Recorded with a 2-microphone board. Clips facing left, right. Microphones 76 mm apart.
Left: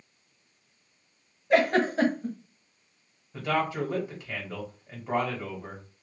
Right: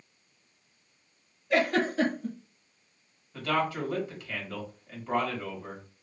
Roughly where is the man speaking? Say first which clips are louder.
Left 1 dB; centre.